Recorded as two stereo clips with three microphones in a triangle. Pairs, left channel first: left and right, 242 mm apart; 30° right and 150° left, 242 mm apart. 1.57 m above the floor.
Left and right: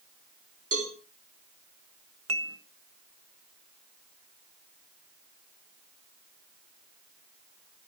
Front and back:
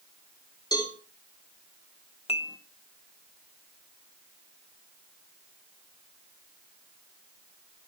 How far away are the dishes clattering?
About 1.2 m.